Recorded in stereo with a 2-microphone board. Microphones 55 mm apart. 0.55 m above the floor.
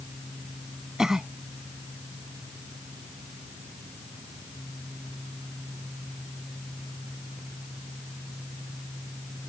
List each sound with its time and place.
1.0 s a cough: 10° right (ahead or behind)